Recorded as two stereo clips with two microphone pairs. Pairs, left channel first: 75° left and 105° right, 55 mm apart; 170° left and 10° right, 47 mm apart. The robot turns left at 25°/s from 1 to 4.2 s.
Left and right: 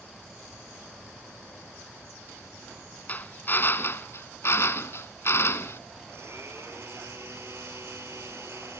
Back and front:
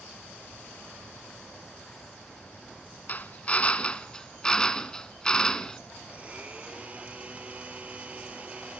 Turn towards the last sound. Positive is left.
turn(degrees=-70)